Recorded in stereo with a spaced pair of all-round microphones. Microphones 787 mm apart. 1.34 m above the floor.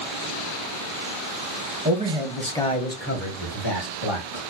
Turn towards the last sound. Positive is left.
turn(degrees=45)  # may be behind; listen again after turning